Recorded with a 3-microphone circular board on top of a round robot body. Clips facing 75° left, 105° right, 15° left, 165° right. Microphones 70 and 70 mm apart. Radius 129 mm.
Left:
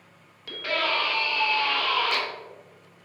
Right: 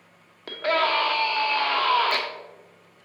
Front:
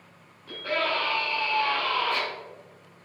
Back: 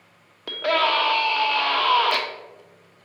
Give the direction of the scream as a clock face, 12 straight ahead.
5 o'clock.